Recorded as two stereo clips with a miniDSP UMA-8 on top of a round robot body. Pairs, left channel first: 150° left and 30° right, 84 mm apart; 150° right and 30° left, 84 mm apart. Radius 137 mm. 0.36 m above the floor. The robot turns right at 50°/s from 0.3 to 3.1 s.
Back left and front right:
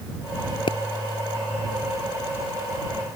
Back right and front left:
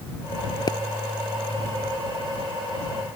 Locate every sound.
0.7 s a pop: 170° left; by 0.8 s 175° left